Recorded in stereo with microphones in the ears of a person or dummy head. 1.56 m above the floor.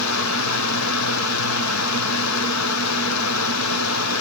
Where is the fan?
75° left (ahead or behind), 0.7 m.